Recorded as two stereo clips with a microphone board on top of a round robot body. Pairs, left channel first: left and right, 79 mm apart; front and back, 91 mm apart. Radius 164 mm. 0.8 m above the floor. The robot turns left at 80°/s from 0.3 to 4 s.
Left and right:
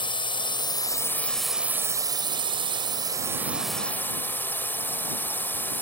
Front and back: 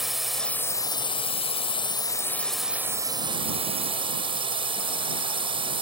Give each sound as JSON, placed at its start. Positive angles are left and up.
{"t": 0.0, "sound": "a drone", "azimuth_deg": 95}